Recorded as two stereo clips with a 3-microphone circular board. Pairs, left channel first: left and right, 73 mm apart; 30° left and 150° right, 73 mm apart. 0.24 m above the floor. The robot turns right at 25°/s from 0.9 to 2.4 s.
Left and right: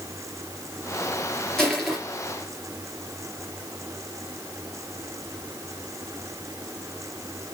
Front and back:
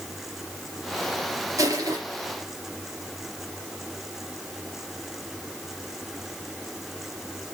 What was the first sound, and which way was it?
Crushing, 170° left.